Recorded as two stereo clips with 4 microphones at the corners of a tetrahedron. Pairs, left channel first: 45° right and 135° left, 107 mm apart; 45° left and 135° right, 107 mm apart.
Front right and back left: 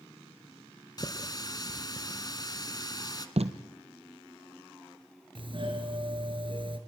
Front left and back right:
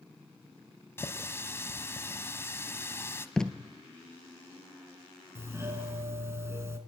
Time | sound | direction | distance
1.0 | a running tap | 15° right | 1.2 m
3.4 | tape being pulled | 130° left | 1.4 m
5.3 | a doorbell | 160° left | 3 m